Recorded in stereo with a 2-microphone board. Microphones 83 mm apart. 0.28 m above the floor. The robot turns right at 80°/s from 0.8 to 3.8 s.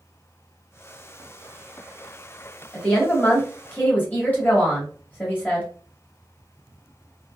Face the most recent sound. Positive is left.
turn(degrees=20)  # may be behind; listen again after turning